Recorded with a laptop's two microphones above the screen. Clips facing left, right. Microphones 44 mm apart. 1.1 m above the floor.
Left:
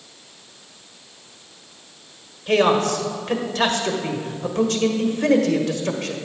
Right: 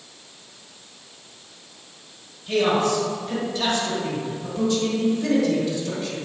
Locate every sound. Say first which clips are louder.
2.5 s a man speaking: left 3 dB; 65° left (ahead or behind), 1.1 m